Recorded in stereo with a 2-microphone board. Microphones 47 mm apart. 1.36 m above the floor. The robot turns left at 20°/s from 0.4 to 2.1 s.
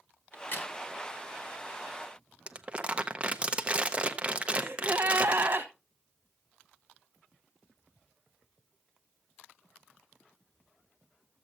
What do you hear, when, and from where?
0.3 s a crack: 45° left (ahead or behind), 1.4 m
2.5 s crumpling: 25° right (ahead or behind), 0.6 m
4.5 s a gasp: 50° right (ahead or behind), 1.2 m